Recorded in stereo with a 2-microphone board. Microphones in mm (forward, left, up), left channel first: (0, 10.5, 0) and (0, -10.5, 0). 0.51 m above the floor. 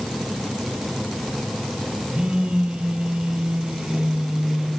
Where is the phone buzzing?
60° right (ahead or behind), 9.5 m.